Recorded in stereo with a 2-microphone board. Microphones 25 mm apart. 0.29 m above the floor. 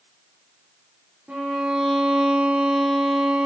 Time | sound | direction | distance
1.3 | a violin | 60° right (ahead or behind) | 4 m